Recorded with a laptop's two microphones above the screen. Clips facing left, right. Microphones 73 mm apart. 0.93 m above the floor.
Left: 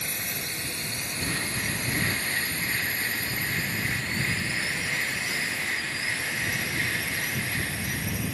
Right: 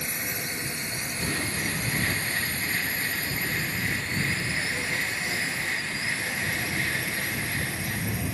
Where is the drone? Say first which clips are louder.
Right 2 dB; 20° right (ahead or behind); by 8.3 s 30° right (ahead or behind).